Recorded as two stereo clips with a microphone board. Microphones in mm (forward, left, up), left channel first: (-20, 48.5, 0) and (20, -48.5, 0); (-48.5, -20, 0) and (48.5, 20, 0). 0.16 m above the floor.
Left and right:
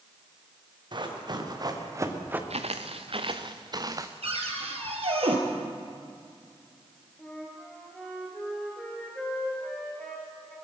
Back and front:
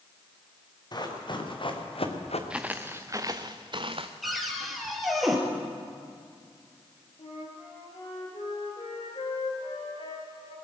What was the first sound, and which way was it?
Running footsteps, 110° right.